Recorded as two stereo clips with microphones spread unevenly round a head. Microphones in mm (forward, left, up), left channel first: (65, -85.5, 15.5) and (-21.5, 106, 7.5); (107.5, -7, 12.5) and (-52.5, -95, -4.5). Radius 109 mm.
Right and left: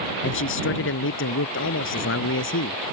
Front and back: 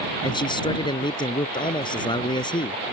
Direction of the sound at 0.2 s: 35° right.